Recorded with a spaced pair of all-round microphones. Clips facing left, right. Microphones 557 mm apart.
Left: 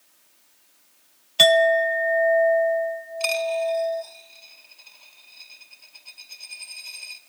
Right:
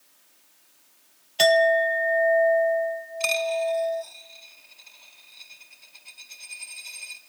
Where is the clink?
30° left (ahead or behind), 0.7 m.